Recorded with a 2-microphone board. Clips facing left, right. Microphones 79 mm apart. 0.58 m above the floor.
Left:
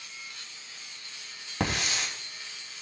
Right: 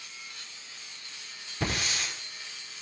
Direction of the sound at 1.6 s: 75° left (ahead or behind).